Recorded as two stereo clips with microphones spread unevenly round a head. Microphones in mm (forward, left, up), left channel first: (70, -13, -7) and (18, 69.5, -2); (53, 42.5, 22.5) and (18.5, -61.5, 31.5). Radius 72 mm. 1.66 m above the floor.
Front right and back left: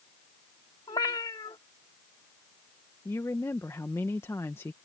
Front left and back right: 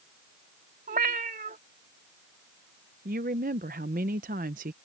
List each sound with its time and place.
0.9 s a cat meowing: 120° right
3.0 s a woman speaking: 135° right